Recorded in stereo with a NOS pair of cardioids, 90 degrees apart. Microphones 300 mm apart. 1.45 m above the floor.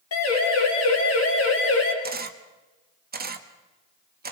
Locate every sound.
0.1 s a siren: 55° left, 6 m; by 1.9 s 50° left, 4.5 m
2.0 s a camera shutter: 30° right, 1.7 m